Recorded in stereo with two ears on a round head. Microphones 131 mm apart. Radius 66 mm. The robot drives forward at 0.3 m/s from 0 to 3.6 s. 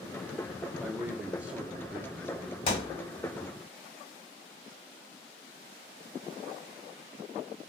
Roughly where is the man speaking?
Centre.